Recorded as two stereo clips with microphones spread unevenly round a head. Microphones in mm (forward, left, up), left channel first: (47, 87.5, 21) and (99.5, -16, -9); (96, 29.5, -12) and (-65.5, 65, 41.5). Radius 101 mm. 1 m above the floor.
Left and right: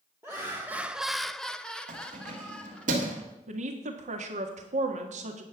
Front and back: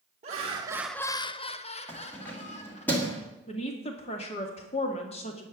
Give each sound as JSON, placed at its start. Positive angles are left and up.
{"t": 0.2, "sound": "laughter", "azimuth_deg": -130, "distance_m": 1.0}
{"t": 1.9, "sound": "keys jangling", "azimuth_deg": -90, "distance_m": 1.5}
{"t": 3.5, "sound": "a woman speaking", "azimuth_deg": -65, "distance_m": 1.7}